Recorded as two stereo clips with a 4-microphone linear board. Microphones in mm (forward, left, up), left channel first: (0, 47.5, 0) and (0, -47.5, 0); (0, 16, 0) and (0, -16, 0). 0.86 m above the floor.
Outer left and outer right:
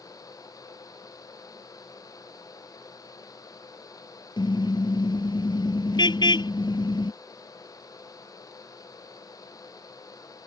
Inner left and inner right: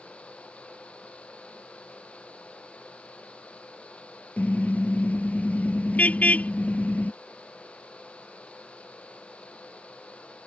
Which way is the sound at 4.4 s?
60° left (ahead or behind).